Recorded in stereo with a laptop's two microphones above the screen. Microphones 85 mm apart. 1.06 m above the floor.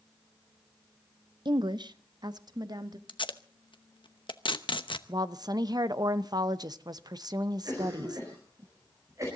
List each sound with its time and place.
1.4 s a woman speaking: 60° right (ahead or behind), 0.7 m; by 3.0 s 50° right (ahead or behind), 1.7 m
3.1 s tape being pulled: 70° left (ahead or behind), 0.9 m
5.1 s a woman speaking: 50° right (ahead or behind), 0.7 m
7.7 s a cough: 40° right (ahead or behind), 4 m